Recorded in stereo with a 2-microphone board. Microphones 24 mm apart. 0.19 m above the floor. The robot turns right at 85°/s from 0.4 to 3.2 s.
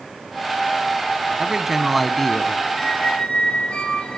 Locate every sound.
1.4 s a man speaking: 55° right, 1.2 m; by 2.6 s 50° left, 1.2 m
2.8 s a squeak: 20° left, 3 m; by 4.2 s 55° left, 3 m